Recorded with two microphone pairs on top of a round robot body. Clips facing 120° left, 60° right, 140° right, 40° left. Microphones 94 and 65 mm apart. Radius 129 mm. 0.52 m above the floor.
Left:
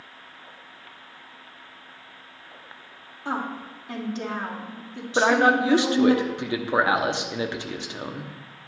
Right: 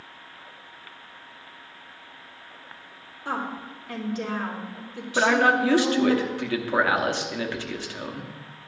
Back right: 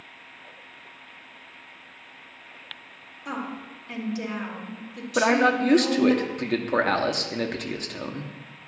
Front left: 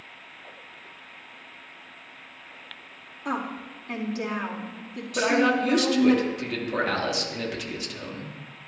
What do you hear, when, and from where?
3.2 s a woman speaking: 60° left, 2.5 m
5.2 s a man speaking: 170° right, 1.1 m